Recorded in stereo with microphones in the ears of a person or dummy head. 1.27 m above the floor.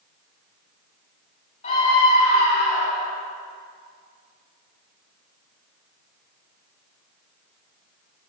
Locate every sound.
1.6 s a scream: 35° left (ahead or behind), 6.5 m; by 3.1 s 45° left (ahead or behind), 6.5 m